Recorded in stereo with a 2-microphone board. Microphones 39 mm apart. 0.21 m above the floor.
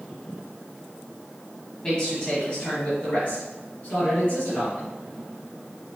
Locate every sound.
1.8 s a man speaking: 20° left (ahead or behind), 1.2 m; by 4.9 s 50° left (ahead or behind), 2.0 m